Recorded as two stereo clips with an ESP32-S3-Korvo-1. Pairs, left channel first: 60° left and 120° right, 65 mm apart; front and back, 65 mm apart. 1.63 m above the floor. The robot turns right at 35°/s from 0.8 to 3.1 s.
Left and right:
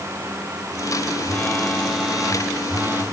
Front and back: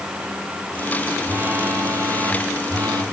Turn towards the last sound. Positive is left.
turn(degrees=-170)